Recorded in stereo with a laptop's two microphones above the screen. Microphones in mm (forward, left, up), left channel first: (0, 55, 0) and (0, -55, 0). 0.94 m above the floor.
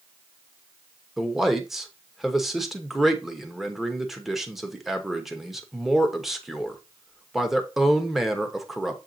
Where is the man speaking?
5° right (ahead or behind), 0.9 m.